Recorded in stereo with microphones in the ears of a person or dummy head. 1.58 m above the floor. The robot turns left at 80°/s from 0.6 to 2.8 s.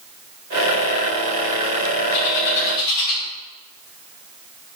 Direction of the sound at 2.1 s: 60° left (ahead or behind).